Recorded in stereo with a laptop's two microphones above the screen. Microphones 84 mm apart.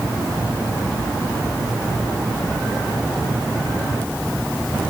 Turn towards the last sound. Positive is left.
No sound to turn to.